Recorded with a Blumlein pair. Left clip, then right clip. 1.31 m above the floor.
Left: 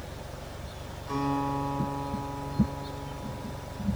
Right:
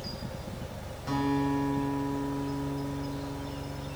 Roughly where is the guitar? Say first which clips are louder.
Even; ahead right.